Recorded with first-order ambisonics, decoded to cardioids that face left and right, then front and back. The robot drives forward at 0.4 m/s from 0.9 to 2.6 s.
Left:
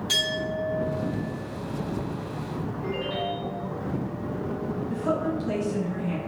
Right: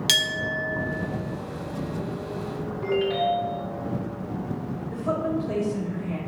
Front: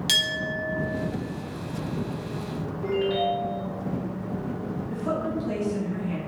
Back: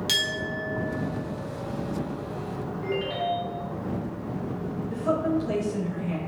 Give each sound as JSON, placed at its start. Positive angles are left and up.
{"t": 0.1, "sound": "a clink", "azimuth_deg": -80, "distance_m": 0.7}
{"t": 2.8, "sound": "a ringtone", "azimuth_deg": -110, "distance_m": 1.4}
{"t": 4.9, "sound": "a woman speaking", "azimuth_deg": 105, "distance_m": 1.0}